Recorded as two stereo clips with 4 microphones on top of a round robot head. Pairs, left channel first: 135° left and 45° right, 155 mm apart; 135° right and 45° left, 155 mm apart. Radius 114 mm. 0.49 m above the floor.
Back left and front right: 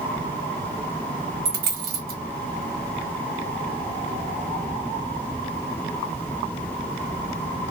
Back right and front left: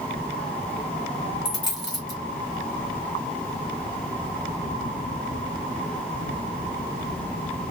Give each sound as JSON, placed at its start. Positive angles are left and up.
{"t": 1.4, "sound": "a dropped coin", "azimuth_deg": -70, "distance_m": 1.4}